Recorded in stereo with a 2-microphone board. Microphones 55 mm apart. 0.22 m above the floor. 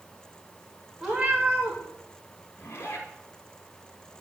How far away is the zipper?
About 2 m.